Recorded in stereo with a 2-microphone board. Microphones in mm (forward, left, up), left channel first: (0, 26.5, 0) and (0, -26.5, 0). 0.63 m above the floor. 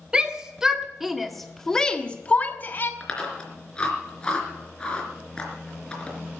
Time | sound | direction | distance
0.1 | a shout | 15° right (ahead or behind) | 2.0 m
3.0 | chewing | 15° left (ahead or behind) | 3.5 m